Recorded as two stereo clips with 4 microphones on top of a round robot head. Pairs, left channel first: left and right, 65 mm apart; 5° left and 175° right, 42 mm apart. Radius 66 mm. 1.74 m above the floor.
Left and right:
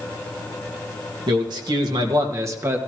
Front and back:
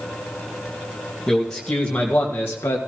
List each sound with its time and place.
1.3 s a man speaking: 80° right, 1.9 m; by 2.8 s 35° right, 1.5 m